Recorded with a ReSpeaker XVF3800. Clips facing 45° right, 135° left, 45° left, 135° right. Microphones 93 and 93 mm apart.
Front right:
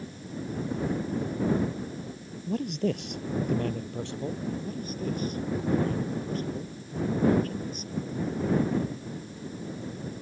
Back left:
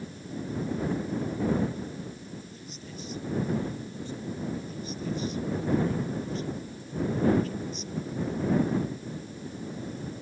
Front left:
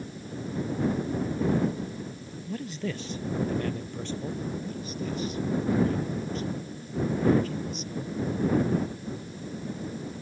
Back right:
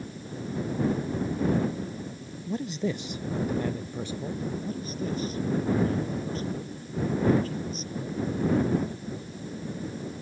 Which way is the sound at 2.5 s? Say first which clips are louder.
Front right 16 dB, back right 4 dB; 65° right.